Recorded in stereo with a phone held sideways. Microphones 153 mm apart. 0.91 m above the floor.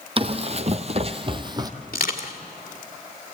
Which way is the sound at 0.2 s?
40° right (ahead or behind).